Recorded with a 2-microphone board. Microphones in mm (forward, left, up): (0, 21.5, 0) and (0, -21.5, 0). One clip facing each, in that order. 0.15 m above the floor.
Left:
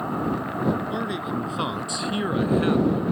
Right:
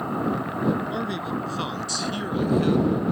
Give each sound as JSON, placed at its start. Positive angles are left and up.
{"t": 0.9, "sound": "a man speaking", "side_deg": 5}